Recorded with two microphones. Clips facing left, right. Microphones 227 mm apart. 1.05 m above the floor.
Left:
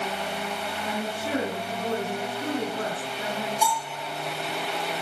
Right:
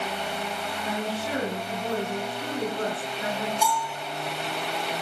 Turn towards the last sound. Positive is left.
turn(degrees=-5)  # may be behind; listen again after turning